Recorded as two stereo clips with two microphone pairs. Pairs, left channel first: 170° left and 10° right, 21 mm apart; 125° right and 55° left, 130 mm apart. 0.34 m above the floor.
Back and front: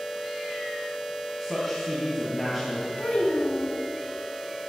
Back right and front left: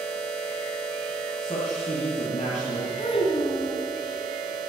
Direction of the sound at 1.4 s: 95° right.